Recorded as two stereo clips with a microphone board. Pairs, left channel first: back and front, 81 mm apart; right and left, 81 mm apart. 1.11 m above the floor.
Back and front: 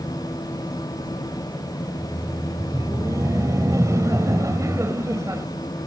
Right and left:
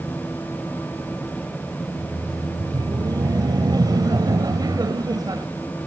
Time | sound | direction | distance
1.8 | laughter | 50° left | ?